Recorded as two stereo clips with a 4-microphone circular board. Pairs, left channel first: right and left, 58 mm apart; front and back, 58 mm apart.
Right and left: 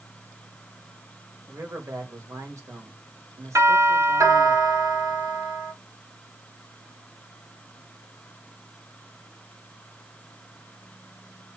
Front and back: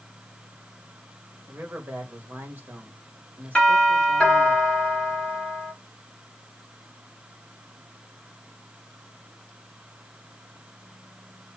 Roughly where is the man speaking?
Behind left.